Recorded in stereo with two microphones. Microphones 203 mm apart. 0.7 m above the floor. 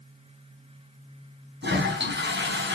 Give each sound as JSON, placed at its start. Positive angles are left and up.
{"t": 1.6, "sound": "a toilet flushing", "side_deg": -60, "distance_m": 4.5}